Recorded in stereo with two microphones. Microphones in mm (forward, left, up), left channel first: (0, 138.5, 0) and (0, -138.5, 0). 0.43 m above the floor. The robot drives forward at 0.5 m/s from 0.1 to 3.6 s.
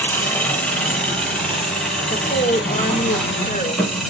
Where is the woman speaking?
35° left (ahead or behind), 1.2 m; by 4.0 s 25° left (ahead or behind), 1.5 m.